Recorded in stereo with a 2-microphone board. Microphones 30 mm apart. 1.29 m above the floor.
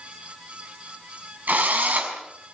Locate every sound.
1.5 s a drill: 70° right (ahead or behind), 5.5 m